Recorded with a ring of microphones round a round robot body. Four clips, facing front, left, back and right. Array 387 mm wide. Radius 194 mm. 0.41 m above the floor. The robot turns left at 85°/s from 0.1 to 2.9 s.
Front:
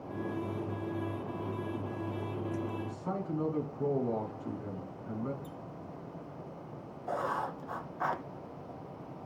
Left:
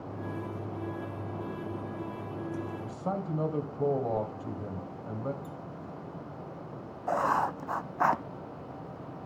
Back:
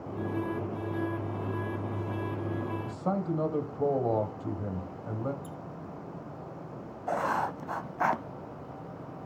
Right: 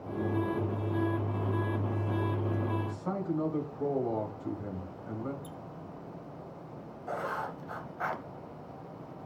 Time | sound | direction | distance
2.8 | a man speaking | 160° left | 1.9 m
5.4 | a squeak | 130° right | 0.9 m
7.1 | writing | 130° left | 0.6 m